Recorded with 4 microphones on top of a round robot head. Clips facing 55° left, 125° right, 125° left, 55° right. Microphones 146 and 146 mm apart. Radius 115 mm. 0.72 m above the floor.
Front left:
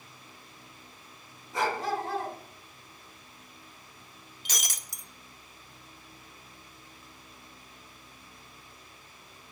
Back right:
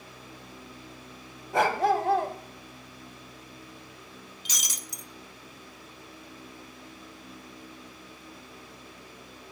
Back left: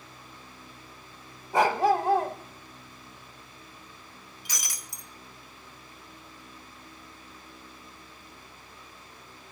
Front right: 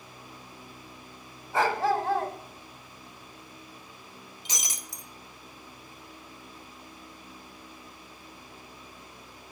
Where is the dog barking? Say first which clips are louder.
Back right 6 dB, back left 3 dB; 160° right, 1.1 m.